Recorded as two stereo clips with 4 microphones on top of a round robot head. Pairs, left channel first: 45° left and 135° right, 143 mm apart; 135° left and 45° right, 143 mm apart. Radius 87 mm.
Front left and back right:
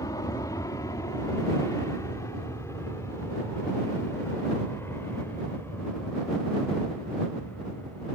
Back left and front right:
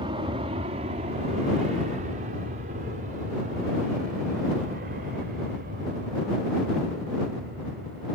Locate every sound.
0.0 s an aircraft: 10° right; by 8.2 s 35° right